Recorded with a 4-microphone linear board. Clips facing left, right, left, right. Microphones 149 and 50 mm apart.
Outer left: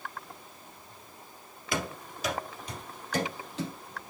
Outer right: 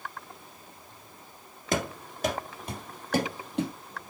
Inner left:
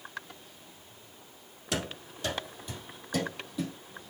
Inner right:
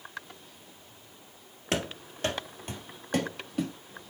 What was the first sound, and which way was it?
Running footsteps, 45° right (ahead or behind).